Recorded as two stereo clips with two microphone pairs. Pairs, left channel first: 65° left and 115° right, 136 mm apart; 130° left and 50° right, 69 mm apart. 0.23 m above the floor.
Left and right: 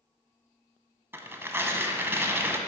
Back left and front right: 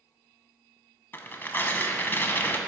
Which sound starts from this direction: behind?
Tearing paper, at 1.1 s.